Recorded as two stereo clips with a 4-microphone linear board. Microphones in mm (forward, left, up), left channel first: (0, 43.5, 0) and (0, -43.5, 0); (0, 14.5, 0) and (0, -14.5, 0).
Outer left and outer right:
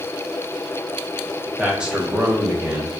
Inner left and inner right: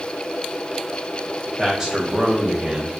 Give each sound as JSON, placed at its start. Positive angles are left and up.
{"t": 1.6, "sound": "a man speaking", "side_deg": -10, "distance_m": 1.5}